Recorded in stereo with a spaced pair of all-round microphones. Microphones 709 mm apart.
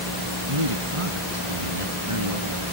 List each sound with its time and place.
0.5 s a man speaking: 45° right (ahead or behind); by 2.6 s 50° right (ahead or behind)